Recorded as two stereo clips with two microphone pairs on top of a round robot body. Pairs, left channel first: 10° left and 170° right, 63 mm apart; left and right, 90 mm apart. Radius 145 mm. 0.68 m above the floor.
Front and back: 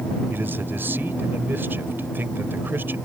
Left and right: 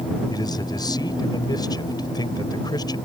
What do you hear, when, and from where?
0.3 s a man speaking: 130° left